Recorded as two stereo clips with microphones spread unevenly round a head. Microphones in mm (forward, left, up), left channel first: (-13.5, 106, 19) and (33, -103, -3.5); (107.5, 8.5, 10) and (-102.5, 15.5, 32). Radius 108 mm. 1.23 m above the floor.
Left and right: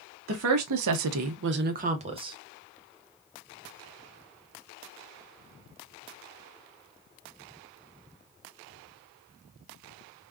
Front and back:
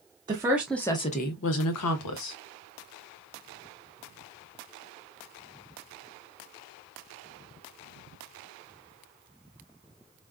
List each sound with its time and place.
0.3 s a woman speaking: 110° right, 0.7 m; by 2.4 s 5° right, 0.9 m